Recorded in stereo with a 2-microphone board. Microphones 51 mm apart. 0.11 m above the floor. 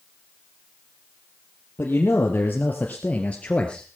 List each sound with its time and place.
1.8 s a man speaking: 40° left (ahead or behind), 3 m; by 3.9 s 15° left (ahead or behind), 1.9 m